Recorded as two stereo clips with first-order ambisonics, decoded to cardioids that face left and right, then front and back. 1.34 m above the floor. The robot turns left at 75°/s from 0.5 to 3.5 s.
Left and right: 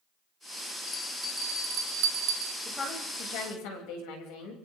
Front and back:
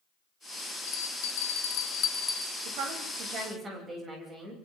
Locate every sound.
0.9 s a bell: 35° left, 3 m; by 2.5 s 95° right, 3 m
2.6 s a woman speaking: 175° left, 9 m; by 4.5 s 110° left, 9 m